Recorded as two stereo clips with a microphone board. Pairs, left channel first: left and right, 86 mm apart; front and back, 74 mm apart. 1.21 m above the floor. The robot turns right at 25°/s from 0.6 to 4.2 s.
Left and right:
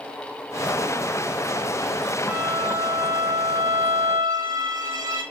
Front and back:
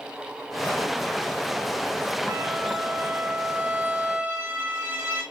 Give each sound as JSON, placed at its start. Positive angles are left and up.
{"t": 2.3, "sound": "a violin", "azimuth_deg": -160, "distance_m": 3.0}